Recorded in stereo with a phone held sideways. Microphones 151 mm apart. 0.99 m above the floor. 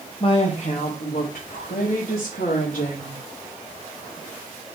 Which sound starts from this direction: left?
A woman speaking, at 0.2 s.